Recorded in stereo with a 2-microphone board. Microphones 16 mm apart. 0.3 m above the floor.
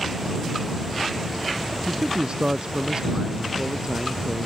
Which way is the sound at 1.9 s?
55° right (ahead or behind).